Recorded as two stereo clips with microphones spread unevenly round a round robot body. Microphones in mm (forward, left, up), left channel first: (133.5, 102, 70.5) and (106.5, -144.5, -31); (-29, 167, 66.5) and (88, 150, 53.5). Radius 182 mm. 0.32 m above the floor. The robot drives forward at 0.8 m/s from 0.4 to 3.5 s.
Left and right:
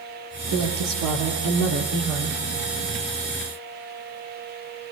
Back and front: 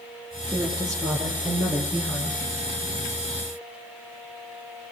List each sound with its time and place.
0.5 s a woman speaking: 90° right, 7 m; by 2.4 s 100° right, 7 m